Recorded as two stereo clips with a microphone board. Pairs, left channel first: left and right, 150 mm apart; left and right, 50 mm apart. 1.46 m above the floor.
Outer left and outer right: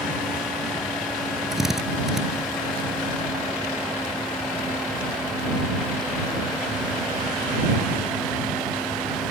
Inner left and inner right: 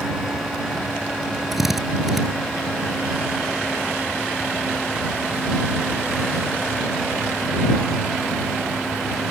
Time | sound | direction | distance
1.5 | a drill | 5° right (ahead or behind) | ?